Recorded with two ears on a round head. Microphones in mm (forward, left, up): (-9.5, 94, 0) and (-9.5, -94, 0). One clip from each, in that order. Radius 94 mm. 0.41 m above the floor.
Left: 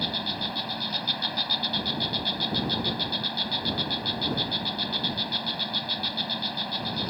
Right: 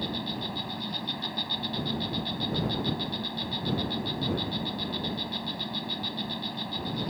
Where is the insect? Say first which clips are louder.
Left 5 dB; 40° left (ahead or behind).